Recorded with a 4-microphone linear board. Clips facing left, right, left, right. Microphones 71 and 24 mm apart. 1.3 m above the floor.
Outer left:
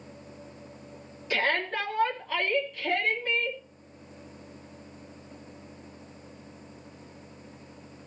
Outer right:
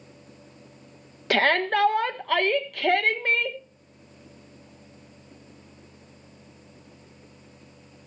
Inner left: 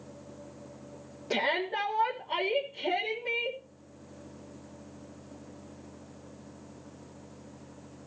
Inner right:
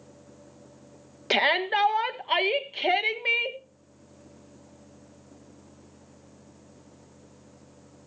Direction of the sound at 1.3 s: 70° right (ahead or behind).